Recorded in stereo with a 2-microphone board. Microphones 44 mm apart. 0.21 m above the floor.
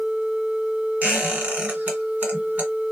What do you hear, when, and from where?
1.0 s a squeak: 40° right (ahead or behind), 1.6 m